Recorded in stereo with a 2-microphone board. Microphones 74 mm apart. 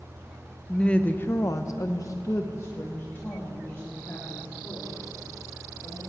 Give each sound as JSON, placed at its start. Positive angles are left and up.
{"t": 0.7, "sound": "a woman speaking", "side_deg": 10, "distance_m": 1.1}